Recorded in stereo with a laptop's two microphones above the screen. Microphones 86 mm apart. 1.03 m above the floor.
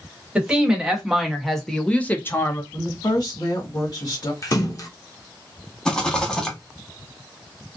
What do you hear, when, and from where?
0.3 s a woman speaking: 10° right (ahead or behind), 1.6 m; by 2.6 s 35° left (ahead or behind), 0.7 m
2.7 s a woman speaking: 55° left (ahead or behind), 1.8 m
4.4 s a splash: 40° left (ahead or behind), 0.5 m
5.8 s a rattle: 10° left (ahead or behind), 1.2 m